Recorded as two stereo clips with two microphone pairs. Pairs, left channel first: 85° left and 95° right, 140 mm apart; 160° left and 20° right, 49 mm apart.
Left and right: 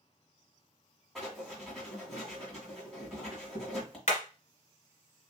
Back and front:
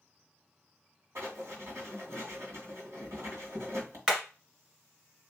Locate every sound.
1.1 s writing: 5° right, 2 m
4.1 s hammering: 50° left, 1.6 m